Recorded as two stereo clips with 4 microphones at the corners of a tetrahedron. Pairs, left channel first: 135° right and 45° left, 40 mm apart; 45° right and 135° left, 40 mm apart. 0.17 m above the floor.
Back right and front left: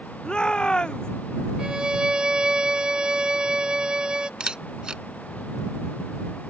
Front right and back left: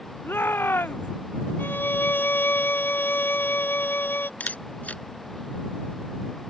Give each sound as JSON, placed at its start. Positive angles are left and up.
{"t": 0.2, "sound": "a shout", "azimuth_deg": -65}
{"t": 1.6, "sound": "a violin", "azimuth_deg": -25}
{"t": 4.4, "sound": "a camera shutter", "azimuth_deg": -20}